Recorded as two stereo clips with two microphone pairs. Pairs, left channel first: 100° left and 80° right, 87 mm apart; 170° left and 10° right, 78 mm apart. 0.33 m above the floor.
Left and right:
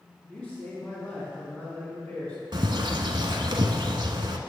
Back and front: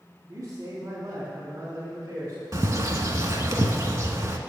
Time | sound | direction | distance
0.3 | a man speaking | 45° left | 2.5 m
2.5 | a bird | 50° right | 0.7 m